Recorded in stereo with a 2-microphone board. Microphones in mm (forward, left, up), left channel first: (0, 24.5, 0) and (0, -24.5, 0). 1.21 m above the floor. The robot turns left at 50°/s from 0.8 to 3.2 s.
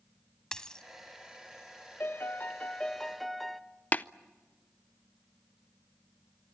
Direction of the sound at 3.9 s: 35° left (ahead or behind).